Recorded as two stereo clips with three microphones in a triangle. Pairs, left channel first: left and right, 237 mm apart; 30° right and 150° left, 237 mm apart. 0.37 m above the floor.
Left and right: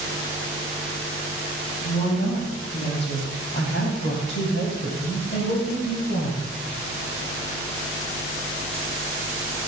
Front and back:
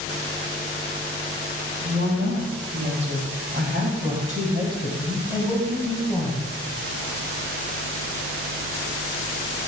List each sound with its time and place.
1.8 s a woman speaking: 140° left, 3.5 m; by 6.5 s 55° left, 3 m